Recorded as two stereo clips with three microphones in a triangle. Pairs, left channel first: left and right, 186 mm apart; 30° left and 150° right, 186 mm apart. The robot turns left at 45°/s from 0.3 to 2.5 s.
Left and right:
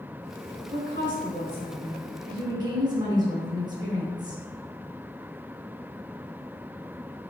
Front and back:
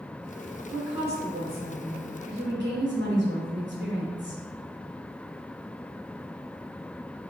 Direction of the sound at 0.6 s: 70° right.